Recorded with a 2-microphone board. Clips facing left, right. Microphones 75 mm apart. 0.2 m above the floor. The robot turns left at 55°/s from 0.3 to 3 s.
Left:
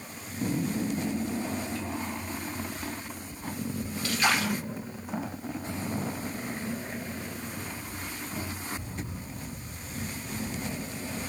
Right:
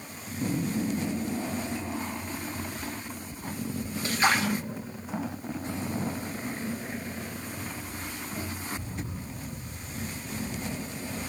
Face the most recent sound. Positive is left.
turn(degrees=-25)  # may be behind; listen again after turning